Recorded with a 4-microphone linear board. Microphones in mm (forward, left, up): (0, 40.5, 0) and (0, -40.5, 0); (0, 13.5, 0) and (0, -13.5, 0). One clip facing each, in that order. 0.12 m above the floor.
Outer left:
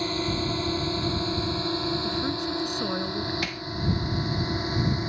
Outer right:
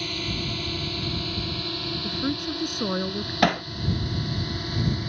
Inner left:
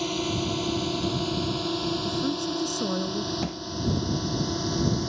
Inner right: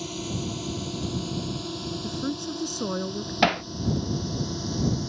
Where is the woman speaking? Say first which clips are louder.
Even, inner left 3 dB; 10° right (ahead or behind).